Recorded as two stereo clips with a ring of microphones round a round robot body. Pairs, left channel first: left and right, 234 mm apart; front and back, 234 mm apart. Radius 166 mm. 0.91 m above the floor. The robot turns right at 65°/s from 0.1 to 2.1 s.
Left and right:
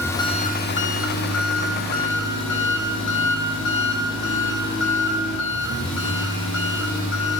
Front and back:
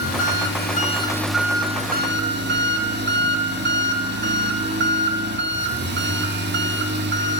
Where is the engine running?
10° left, 2.5 m; by 7.4 s 140° left, 2.5 m.